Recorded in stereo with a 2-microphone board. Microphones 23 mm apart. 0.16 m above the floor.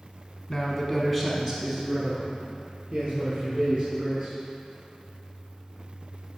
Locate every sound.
0.5 s a man speaking: 30° left (ahead or behind), 1.2 m; by 4.3 s 40° right (ahead or behind), 3.5 m